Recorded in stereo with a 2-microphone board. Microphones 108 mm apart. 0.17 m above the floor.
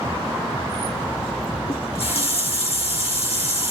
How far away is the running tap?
About 2.5 m.